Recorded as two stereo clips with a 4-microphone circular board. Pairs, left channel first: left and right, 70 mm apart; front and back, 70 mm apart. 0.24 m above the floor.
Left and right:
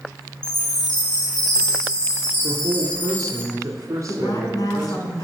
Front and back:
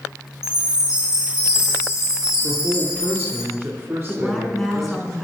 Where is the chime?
100° left, 4 m.